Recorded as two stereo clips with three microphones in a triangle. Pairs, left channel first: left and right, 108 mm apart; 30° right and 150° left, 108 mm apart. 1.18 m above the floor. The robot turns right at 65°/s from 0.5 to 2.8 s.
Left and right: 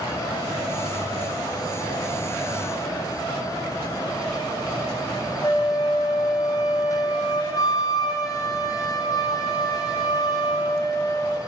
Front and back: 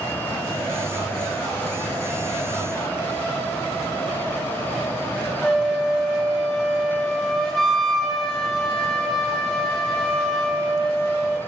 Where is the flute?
55° left, 0.5 m.